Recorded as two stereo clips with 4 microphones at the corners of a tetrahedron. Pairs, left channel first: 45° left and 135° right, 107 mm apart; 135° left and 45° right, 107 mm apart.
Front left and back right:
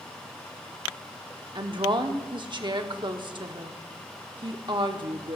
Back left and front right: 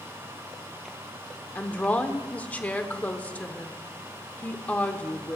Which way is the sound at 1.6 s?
155° right.